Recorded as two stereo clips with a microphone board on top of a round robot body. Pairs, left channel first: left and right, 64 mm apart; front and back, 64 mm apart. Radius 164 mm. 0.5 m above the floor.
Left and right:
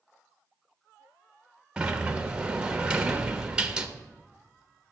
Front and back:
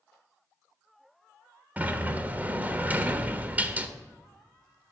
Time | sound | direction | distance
1.8 | a sliding door | 150° right | 1.2 m